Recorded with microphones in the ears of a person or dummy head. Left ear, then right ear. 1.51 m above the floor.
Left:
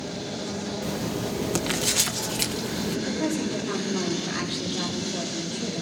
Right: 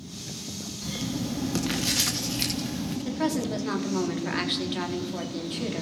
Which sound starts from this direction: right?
A woman speaking, at 3.0 s.